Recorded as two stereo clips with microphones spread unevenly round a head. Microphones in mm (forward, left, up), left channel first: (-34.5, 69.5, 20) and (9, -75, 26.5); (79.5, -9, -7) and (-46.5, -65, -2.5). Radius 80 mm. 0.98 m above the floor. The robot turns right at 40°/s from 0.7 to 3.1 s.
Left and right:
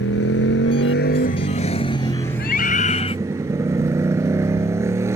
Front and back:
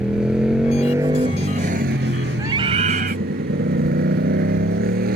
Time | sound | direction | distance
0.0 | a motorcycle | 120° left | ?
2.4 | a scream | 130° left | ?